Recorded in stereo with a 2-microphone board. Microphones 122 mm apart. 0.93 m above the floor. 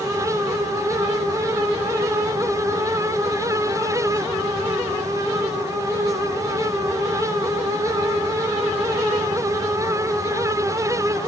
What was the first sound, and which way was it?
Only background noise.